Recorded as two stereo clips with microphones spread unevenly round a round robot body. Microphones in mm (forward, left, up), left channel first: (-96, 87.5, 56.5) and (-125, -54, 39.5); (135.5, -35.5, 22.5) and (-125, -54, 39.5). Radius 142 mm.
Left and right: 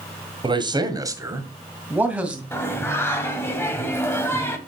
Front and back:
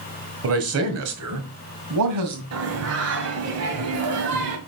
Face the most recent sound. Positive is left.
turn(degrees=155)